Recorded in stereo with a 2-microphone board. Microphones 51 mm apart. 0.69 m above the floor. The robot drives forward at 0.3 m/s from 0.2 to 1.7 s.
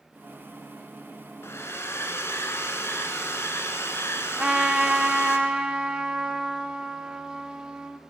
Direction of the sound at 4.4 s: 15° right (ahead or behind).